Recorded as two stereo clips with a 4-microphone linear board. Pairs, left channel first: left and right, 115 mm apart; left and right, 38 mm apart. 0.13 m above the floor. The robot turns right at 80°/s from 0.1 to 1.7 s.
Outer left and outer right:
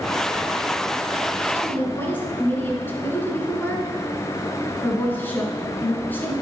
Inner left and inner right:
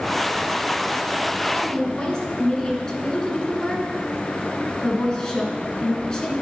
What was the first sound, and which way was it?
A woman speaking, 25° left (ahead or behind).